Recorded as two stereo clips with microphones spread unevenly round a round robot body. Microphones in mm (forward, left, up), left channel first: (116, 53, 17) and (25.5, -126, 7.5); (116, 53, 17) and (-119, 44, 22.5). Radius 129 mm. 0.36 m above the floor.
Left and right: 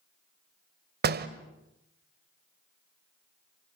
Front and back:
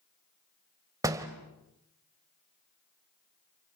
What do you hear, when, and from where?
1.0 s a door slam: 105° right, 1.4 m